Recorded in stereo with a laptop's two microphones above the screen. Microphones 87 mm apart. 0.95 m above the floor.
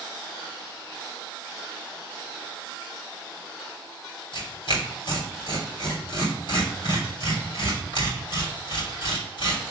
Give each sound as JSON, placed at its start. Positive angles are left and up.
{"t": 4.3, "sound": "tearing paper", "side_deg": 60, "distance_m": 3.0}